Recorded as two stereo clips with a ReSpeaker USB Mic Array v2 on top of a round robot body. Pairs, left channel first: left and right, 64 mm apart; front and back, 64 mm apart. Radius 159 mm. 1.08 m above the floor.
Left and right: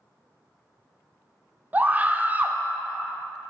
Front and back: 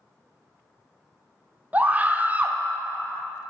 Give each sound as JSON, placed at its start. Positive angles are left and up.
{"t": 1.7, "sound": "a scream", "azimuth_deg": -135, "distance_m": 0.7}